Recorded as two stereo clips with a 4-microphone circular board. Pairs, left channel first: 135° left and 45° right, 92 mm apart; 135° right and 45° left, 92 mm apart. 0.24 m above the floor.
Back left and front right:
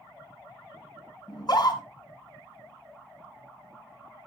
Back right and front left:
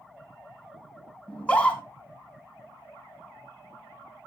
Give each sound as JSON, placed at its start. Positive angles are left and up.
{"t": 1.3, "sound": "a scream", "azimuth_deg": 150, "distance_m": 2.5}